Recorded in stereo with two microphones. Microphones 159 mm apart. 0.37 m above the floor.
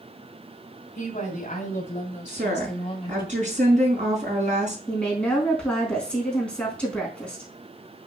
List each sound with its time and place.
0.9 s a woman speaking: 50° left (ahead or behind), 3 m; by 3.3 s 25° left (ahead or behind), 1.3 m
2.3 s a woman speaking: 50° right (ahead or behind), 4.5 m
4.9 s a woman speaking: 5° left (ahead or behind), 4 m